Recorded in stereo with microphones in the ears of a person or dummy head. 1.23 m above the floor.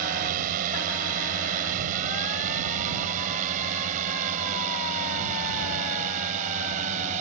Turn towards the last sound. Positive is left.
turn(degrees=-35)  # may be behind; listen again after turning